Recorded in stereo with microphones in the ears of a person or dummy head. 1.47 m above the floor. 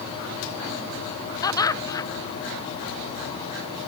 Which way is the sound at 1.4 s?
20° left (ahead or behind).